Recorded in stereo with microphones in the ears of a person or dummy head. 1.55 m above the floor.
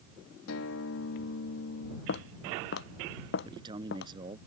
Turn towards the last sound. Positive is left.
turn(degrees=-25)  # may be behind; listen again after turning